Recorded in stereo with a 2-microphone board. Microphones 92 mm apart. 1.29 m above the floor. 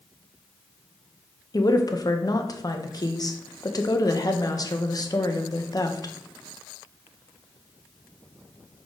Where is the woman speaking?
45° left (ahead or behind), 0.8 m.